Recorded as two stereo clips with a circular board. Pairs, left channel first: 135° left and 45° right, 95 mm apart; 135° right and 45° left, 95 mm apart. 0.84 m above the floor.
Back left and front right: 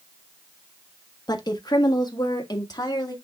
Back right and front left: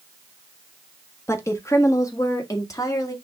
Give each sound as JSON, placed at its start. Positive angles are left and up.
{"t": 1.3, "sound": "a woman speaking", "azimuth_deg": 170, "distance_m": 1.4}